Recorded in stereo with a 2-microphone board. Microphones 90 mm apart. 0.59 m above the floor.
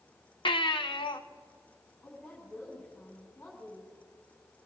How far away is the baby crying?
About 1.0 m.